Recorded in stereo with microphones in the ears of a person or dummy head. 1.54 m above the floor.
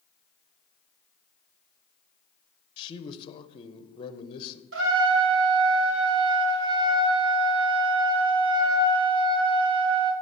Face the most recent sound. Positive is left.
turn(degrees=-70)  # may be behind; listen again after turning